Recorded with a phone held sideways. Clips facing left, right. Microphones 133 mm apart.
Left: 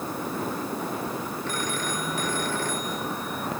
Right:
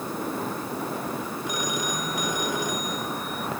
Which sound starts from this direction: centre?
A phone ringing, at 1.5 s.